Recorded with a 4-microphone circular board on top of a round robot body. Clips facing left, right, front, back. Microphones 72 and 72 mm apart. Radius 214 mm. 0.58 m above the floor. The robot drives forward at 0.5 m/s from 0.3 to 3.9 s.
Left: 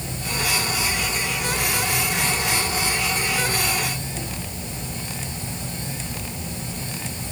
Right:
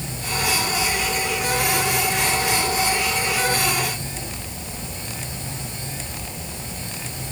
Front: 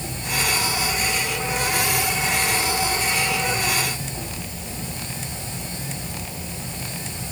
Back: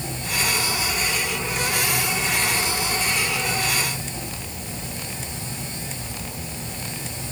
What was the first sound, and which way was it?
Only background noise.